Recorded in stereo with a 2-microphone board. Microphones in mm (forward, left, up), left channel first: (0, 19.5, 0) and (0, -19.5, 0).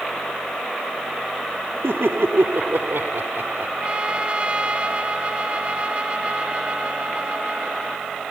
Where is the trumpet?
25° right (ahead or behind).